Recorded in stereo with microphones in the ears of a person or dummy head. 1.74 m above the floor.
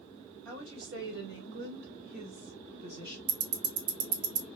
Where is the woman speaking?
75° right (ahead or behind), 2 m; by 3.2 s 25° right (ahead or behind), 1.1 m.